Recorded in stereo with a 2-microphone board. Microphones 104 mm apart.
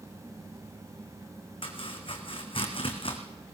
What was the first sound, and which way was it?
Chopping, 60° left (ahead or behind).